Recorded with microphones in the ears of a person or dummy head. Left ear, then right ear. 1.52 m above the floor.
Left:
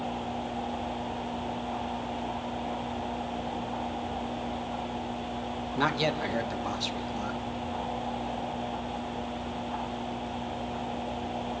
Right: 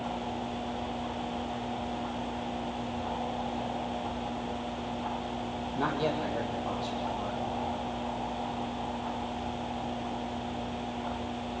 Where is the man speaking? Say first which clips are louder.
Left 3 dB; 65° left (ahead or behind), 2.5 m.